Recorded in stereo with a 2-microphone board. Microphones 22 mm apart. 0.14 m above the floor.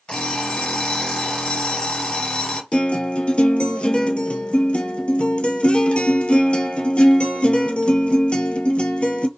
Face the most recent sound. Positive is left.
turn(degrees=60)  # may be behind; listen again after turning